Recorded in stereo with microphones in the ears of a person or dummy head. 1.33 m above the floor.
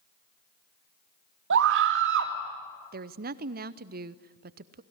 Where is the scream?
60° right (ahead or behind), 2.5 m.